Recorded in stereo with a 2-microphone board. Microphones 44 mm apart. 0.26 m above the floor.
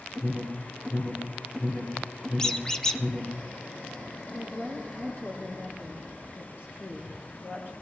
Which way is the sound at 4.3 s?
60° left (ahead or behind).